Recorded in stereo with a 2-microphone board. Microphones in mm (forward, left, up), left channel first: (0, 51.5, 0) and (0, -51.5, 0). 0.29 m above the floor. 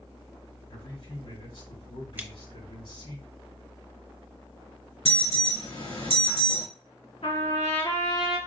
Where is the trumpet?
70° left (ahead or behind), 2 m.